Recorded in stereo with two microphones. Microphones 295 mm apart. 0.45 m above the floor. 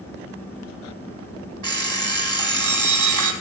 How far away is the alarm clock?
About 1.2 m.